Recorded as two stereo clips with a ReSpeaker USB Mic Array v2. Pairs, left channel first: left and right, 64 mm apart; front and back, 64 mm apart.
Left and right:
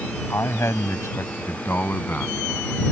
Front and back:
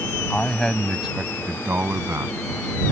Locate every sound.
0.3 s a man speaking: 60° left; by 2.9 s 155° left